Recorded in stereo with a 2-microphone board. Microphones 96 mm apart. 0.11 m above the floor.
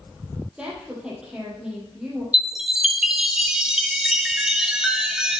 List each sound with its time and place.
0.6 s a woman speaking: 10° right (ahead or behind), 3.5 m
2.3 s a chime: 5° right (ahead or behind), 0.7 m